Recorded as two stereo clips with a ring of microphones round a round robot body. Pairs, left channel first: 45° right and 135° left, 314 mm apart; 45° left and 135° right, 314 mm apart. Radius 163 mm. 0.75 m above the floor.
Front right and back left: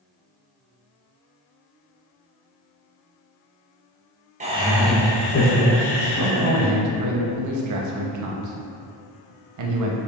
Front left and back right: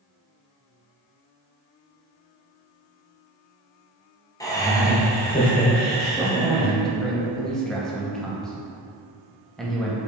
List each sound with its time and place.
4.4 s laughter: 110° left, 0.7 m; by 6.7 s 45° right, 1.2 m
6.2 s a man speaking: 135° left, 0.7 m